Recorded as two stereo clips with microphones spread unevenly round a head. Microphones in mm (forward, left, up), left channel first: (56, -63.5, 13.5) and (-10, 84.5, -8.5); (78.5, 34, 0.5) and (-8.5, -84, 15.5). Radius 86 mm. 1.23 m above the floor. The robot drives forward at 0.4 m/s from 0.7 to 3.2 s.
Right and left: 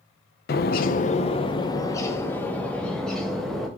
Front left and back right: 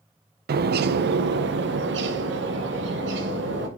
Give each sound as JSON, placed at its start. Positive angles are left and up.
{"t": 0.5, "sound": "a bird", "azimuth_deg": -110, "distance_m": 0.6}